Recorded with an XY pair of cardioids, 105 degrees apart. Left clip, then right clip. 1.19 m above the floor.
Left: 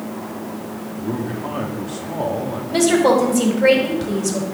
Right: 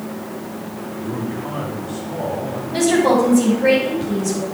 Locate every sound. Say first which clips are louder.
1.0 s a man speaking: left 1 dB; 45° left, 2.5 m
2.7 s a woman speaking: left 1 dB; 45° left, 4 m